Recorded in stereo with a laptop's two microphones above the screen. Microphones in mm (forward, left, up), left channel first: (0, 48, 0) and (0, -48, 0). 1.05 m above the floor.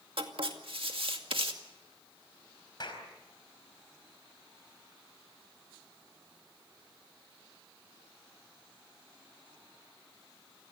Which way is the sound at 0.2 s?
70° right (ahead or behind).